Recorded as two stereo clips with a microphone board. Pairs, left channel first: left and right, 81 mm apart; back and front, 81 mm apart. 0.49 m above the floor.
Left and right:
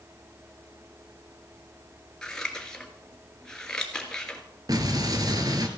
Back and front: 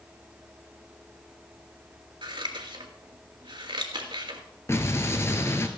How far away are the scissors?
About 1.5 m.